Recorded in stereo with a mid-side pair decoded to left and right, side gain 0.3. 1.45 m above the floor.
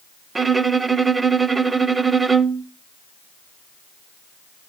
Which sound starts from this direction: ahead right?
A violin, at 0.3 s.